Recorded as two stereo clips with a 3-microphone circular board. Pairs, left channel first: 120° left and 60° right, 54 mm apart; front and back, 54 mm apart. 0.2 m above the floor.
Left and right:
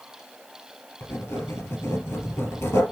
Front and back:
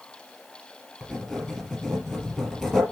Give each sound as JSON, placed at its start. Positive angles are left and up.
{"t": 1.0, "sound": "writing", "azimuth_deg": 90, "distance_m": 3.5}